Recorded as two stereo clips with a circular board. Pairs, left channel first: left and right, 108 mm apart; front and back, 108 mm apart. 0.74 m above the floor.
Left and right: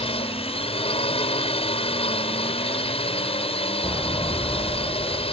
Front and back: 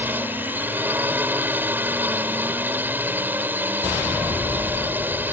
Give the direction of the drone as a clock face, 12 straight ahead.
8 o'clock.